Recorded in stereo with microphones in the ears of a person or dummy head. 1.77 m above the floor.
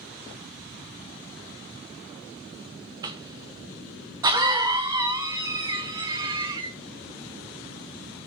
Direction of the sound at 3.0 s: 20° right (ahead or behind).